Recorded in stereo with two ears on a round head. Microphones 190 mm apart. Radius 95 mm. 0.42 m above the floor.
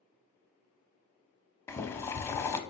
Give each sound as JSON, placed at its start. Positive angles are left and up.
{"t": 1.7, "sound": "boiling", "side_deg": 15, "distance_m": 0.5}